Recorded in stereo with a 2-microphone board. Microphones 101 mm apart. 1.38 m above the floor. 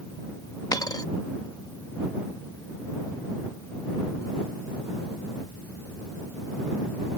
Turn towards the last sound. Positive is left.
turn(degrees=40)  # may be behind; listen again after turning